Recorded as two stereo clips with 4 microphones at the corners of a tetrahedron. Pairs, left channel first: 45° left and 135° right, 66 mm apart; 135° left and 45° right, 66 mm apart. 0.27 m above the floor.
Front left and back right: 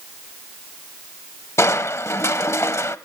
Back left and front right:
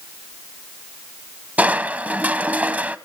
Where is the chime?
No chime in this recording.